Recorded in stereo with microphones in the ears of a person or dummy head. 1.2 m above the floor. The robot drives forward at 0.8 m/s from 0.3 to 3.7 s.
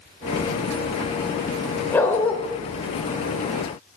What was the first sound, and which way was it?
A dog barking, 10° left (ahead or behind).